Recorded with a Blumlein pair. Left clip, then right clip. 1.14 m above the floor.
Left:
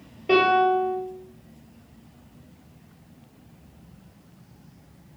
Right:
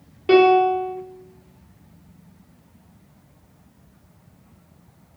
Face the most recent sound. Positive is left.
turn(degrees=-50)